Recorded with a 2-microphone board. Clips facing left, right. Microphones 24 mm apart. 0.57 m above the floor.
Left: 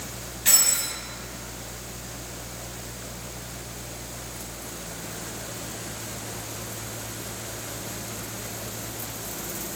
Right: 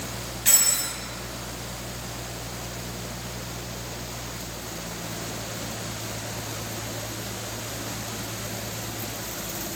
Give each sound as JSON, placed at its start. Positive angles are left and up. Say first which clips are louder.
{"t": 0.5, "sound": "keys jangling", "louder": "left 1 dB", "side_deg": 0, "distance_m": 3.0}